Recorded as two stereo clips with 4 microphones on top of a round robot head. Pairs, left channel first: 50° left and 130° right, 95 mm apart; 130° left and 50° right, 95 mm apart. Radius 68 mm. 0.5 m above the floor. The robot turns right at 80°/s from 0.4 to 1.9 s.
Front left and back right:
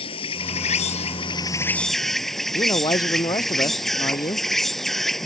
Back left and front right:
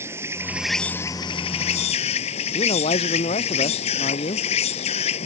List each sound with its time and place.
0.0 s an insect: 15° left; by 5.2 s 135° left
2.5 s a man speaking: 100° left